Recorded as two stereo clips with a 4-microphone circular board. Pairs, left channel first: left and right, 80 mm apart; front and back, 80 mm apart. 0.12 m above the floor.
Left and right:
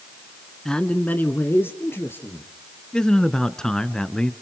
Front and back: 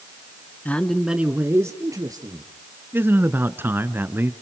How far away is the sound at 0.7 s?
About 1.3 m.